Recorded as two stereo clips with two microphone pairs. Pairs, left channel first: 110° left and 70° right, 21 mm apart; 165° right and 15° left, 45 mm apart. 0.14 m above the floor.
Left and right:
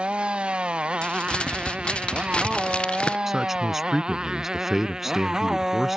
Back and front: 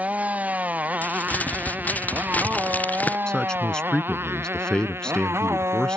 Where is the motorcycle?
45° right; by 6.0 s straight ahead.